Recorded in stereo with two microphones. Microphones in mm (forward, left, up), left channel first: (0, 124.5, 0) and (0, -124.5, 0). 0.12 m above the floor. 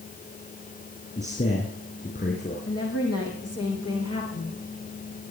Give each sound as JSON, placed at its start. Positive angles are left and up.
{"t": 1.2, "sound": "a man speaking", "side_deg": 40, "distance_m": 4.5}
{"t": 2.7, "sound": "a woman speaking", "side_deg": 75, "distance_m": 5.5}